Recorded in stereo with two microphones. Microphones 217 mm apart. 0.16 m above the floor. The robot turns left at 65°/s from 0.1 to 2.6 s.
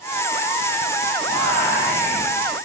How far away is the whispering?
About 1.3 m.